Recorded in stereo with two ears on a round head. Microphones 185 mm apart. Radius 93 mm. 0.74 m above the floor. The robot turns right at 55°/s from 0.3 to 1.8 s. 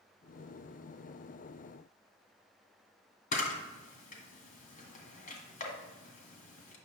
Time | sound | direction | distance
3.3 | a camera shutter | 40° left (ahead or behind) | 1.8 m